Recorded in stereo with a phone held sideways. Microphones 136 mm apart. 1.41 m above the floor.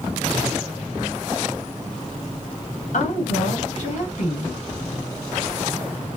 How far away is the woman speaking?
About 3 m.